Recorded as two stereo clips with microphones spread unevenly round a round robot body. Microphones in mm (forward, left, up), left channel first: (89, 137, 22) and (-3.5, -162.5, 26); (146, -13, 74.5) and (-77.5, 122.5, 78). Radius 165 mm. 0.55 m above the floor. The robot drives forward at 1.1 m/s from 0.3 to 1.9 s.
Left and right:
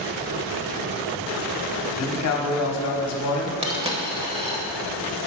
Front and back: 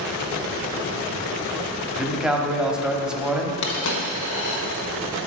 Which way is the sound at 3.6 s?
35° right.